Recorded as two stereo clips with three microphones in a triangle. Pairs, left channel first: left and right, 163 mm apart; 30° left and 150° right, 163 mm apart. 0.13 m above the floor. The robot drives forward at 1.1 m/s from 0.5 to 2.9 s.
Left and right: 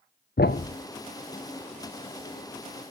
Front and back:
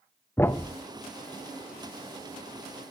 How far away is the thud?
About 0.6 m.